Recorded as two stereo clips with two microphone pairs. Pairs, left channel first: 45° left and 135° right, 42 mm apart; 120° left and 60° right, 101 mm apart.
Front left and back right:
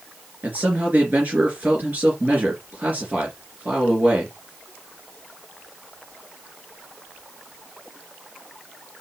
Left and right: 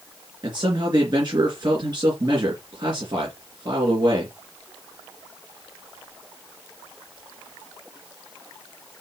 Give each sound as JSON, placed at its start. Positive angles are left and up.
{"t": 0.4, "sound": "a man speaking", "azimuth_deg": -95, "distance_m": 3.0}